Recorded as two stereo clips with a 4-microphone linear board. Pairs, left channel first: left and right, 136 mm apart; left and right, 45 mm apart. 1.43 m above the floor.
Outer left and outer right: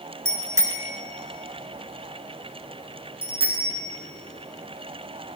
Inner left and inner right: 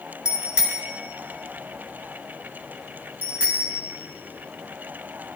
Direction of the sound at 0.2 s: 20° right (ahead or behind).